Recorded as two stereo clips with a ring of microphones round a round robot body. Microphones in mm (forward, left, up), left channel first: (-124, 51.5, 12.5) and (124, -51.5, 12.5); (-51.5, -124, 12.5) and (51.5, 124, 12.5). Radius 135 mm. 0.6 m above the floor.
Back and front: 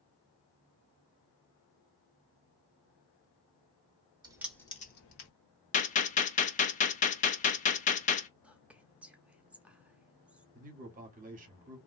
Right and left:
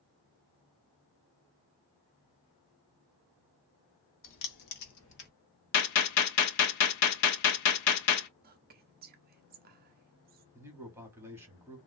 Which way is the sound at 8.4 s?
60° left.